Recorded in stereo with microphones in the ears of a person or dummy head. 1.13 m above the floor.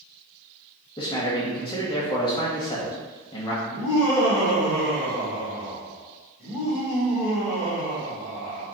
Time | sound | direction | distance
1.0 | a man speaking | 25° left (ahead or behind) | 1.1 m
3.6 | laughter | 20° left (ahead or behind) | 1.9 m